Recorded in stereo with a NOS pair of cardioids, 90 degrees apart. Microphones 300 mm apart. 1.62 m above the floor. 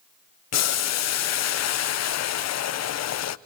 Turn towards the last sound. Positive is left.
turn(degrees=60)